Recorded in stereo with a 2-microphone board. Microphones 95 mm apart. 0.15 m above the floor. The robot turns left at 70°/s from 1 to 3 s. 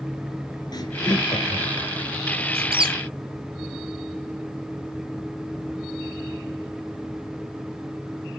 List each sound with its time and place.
0.7 s laughter: 45° left (ahead or behind), 2 m
2.5 s a squeak: 85° right, 0.6 m; by 3.0 s 55° right (ahead or behind), 0.6 m